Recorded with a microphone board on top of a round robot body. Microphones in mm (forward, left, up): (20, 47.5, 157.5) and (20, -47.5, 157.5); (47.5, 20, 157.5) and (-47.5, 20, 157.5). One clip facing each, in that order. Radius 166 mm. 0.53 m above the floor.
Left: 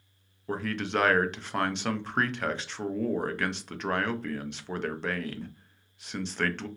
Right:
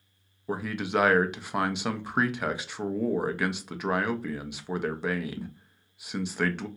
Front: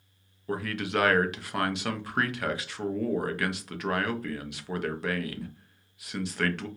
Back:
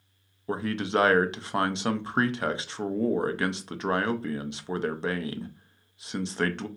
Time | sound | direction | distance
0.5 | a man speaking | 160° right | 0.6 m